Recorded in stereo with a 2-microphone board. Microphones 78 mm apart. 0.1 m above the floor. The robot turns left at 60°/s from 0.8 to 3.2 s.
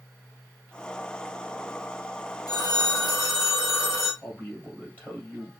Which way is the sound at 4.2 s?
25° left (ahead or behind).